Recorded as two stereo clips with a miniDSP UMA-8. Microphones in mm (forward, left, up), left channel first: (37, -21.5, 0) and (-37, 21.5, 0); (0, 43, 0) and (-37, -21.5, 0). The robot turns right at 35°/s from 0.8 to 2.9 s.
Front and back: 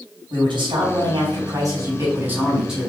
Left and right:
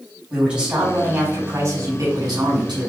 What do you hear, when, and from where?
0.3 s a man speaking: 165° left, 4 m; by 2.9 s 120° right, 4 m